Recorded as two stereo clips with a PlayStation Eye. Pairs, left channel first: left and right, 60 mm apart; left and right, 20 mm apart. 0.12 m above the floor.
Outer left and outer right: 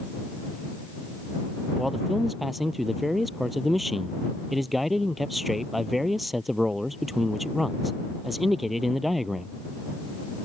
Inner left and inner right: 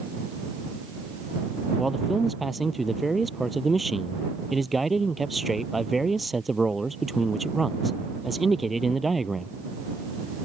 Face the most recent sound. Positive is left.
turn(degrees=0)  # may be behind; listen again after turning